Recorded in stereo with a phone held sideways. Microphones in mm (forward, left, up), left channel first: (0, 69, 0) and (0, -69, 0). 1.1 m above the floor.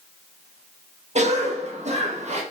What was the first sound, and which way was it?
A cough, 55° right (ahead or behind).